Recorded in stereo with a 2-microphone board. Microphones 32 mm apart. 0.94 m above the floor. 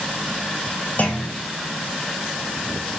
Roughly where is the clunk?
Left.